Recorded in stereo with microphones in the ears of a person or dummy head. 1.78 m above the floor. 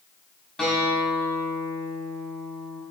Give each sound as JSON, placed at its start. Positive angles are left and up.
{"t": 0.6, "sound": "a guitar", "side_deg": 5, "distance_m": 3.5}